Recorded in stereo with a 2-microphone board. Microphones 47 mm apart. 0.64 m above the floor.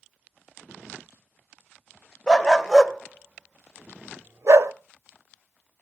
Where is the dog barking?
15° left (ahead or behind), 0.9 m; by 4.7 s 80° right, 0.9 m.